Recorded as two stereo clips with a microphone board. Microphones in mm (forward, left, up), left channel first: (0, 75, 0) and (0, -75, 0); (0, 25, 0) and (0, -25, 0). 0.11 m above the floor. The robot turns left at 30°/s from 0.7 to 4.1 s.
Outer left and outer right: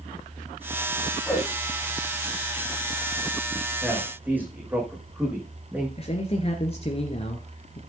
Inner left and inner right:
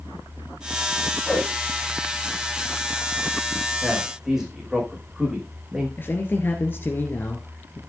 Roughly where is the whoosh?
Centre.